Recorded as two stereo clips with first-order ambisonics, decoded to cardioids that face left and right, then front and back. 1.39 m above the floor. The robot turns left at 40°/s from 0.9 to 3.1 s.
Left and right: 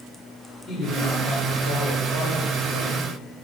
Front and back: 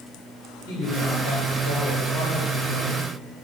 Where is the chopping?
I don't hear chopping.